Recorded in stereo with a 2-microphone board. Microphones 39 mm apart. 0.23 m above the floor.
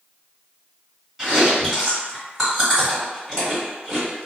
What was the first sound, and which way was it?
Chewing, 5° right (ahead or behind).